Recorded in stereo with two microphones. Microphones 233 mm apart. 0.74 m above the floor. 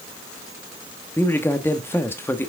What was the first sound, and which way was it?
A man speaking, 10° left (ahead or behind).